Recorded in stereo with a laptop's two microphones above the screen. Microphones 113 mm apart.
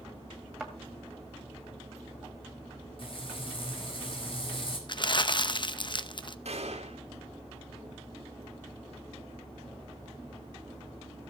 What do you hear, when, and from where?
0.6 s a thud: centre (ahead or behind), 2.0 m
3.0 s frying: 50° left (ahead or behind), 4.5 m
4.9 s crumpling: 45° left (ahead or behind), 0.7 m
6.5 s a gunshot: 70° right (ahead or behind), 2.5 m